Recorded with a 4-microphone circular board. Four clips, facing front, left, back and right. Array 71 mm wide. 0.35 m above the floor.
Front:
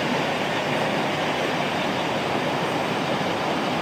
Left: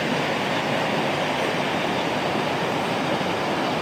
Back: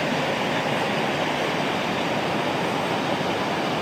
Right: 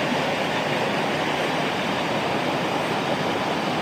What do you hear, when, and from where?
Only background noise.